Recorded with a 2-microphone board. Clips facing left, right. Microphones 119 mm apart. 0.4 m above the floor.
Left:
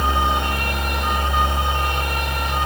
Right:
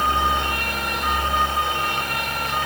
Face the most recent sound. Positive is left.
No sound to turn to.